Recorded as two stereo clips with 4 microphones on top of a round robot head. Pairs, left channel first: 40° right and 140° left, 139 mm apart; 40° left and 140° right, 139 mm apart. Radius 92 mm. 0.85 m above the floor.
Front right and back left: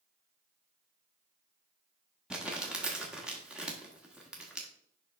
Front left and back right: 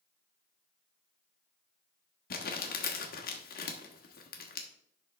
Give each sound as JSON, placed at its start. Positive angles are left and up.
{"t": 2.3, "sound": "crumpling", "azimuth_deg": 55, "distance_m": 1.4}